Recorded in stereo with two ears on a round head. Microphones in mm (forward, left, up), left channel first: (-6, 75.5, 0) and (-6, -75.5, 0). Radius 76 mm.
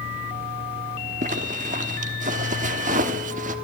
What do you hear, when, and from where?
1.2 s a zipper: 50° right (ahead or behind), 1.2 m